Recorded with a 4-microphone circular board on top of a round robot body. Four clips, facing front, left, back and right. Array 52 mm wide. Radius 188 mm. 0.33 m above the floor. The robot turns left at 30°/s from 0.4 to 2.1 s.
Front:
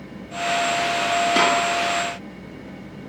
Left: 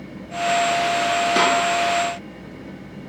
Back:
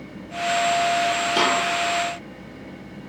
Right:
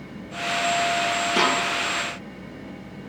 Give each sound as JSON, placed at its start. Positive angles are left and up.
{"t": 1.4, "sound": "a snare drum", "azimuth_deg": 40, "distance_m": 4.5}